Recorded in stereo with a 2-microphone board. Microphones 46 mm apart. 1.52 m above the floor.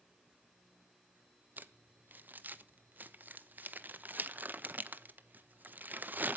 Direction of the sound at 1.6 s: 45° right (ahead or behind).